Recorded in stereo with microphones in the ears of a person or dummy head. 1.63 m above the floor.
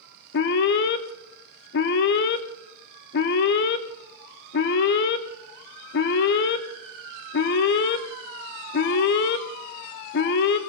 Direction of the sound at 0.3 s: 60° left (ahead or behind).